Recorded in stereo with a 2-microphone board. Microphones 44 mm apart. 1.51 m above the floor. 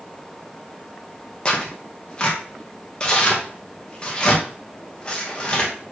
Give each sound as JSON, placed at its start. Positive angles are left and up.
{"t": 1.4, "sound": "tearing paper", "side_deg": 25, "distance_m": 1.2}